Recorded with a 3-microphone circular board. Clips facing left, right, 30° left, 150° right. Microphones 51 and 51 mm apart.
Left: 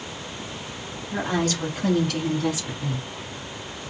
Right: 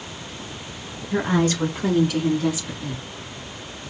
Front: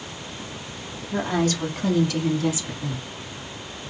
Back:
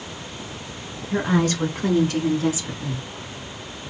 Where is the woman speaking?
135° right, 1.7 m; by 3.0 s 160° left, 1.4 m.